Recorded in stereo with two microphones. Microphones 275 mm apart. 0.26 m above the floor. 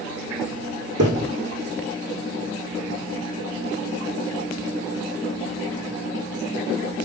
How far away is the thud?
About 5 m.